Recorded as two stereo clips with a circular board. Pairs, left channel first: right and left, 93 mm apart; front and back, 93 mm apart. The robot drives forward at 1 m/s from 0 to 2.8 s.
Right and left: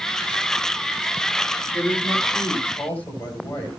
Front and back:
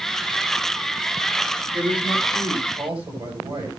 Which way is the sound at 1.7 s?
160° right.